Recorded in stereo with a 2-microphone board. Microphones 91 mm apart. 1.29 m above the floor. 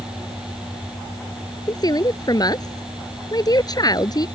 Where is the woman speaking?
45° left (ahead or behind).